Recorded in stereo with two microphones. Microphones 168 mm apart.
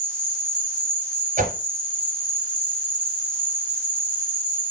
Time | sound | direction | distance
0.0 | an insect | 5° left (ahead or behind) | 6 m
1.4 | a whoosh | 50° right (ahead or behind) | 2 m